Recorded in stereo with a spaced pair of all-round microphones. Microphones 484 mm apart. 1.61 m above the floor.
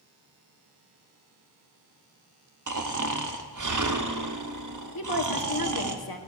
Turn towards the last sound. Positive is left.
turn(degrees=45)  # may be behind; listen again after turning